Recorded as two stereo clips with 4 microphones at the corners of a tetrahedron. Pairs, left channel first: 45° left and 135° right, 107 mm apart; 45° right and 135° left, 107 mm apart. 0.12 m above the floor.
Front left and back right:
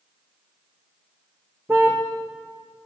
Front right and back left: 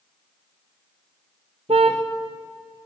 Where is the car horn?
155° left, 4 m.